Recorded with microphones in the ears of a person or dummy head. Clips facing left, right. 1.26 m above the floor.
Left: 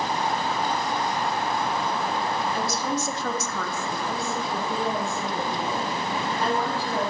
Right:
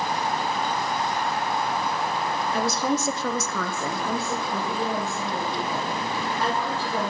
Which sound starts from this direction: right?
A woman speaking, at 2.5 s.